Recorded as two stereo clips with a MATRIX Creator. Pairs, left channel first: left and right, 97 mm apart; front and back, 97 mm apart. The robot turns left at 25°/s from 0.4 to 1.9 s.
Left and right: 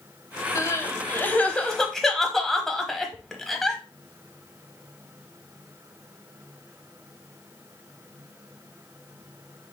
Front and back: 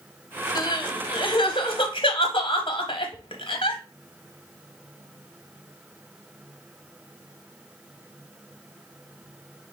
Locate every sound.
0.6 s crying: 35° left, 0.9 m; by 3.8 s straight ahead, 0.9 m